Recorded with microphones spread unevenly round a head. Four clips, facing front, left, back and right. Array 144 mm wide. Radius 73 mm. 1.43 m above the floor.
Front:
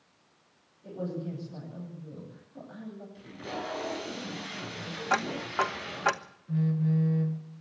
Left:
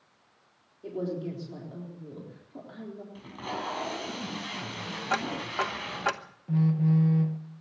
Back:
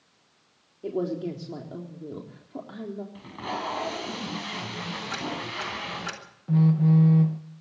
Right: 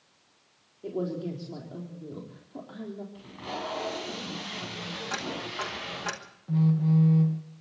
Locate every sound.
0.8 s a man speaking: 170° right, 4 m
3.1 s tape being pulled: 165° left, 6 m
5.1 s ticking: 30° left, 1.1 m
6.5 s a phone buzzing: 175° left, 1.5 m